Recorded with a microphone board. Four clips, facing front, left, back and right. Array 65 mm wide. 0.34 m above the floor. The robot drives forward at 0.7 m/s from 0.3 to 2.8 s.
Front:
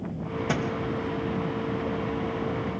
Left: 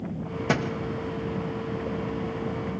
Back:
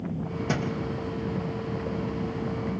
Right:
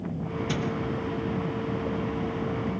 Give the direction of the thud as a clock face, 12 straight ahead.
9 o'clock.